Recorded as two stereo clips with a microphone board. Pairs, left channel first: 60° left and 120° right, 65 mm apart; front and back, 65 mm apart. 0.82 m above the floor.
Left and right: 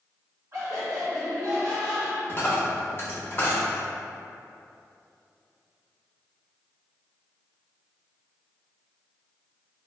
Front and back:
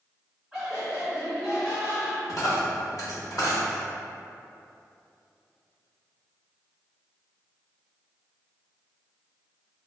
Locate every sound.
0.5 s laughter: 100° right, 1.5 m; by 2.2 s 45° right, 1.2 m
2.3 s a dropped coin: 15° left, 0.8 m